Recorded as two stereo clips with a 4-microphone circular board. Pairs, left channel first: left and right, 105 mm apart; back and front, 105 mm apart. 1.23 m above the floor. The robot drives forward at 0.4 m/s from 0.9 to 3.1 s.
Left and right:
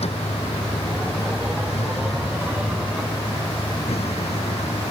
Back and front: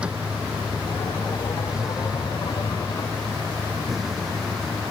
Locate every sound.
0.0 s a vehicle: 80° left; by 4.9 s 90° left